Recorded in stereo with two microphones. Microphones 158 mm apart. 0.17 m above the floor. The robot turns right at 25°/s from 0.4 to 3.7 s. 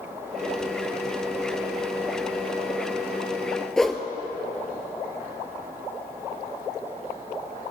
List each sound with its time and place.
3.8 s a whoosh: 5° left (ahead or behind), 1.0 m